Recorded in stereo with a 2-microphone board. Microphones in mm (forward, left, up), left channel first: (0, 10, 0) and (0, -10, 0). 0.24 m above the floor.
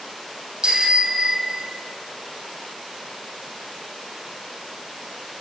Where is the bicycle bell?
40° right (ahead or behind), 6.5 m; by 1.8 s 35° right (ahead or behind), 6.5 m.